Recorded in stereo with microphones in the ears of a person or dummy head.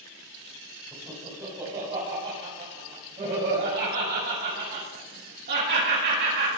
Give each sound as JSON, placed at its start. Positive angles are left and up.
{"t": 0.9, "sound": "laughter", "side_deg": -10, "distance_m": 7.0}